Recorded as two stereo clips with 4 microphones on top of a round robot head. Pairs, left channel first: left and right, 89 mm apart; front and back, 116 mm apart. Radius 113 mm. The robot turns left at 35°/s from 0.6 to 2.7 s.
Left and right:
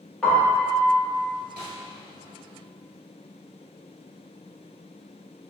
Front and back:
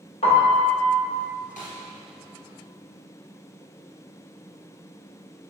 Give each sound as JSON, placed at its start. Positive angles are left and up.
{"t": 0.2, "sound": "a piano", "azimuth_deg": 10, "distance_m": 1.8}
{"t": 1.6, "sound": "a snare drum", "azimuth_deg": -15, "distance_m": 2.0}